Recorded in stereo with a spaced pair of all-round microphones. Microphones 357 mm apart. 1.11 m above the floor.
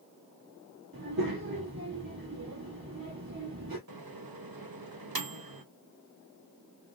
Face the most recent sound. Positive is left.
turn(degrees=-75)  # may be behind; listen again after turning